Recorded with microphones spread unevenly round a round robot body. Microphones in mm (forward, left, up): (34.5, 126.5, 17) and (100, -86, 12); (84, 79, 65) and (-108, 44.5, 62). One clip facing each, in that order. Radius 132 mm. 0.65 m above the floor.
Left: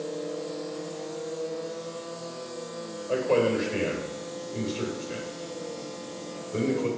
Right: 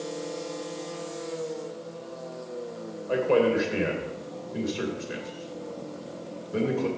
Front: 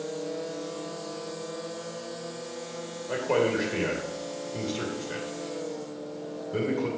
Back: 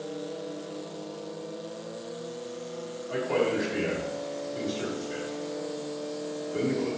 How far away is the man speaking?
About 3 m.